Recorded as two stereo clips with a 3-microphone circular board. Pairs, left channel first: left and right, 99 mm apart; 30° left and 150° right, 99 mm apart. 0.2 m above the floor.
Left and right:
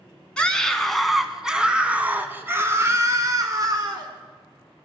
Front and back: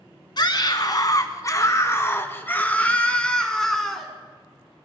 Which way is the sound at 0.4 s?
15° left.